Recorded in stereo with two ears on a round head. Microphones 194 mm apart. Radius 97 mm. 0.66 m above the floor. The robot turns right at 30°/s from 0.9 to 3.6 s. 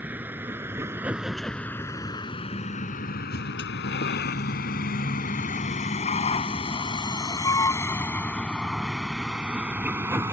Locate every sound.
0.0 s a vehicle: 10° right (ahead or behind)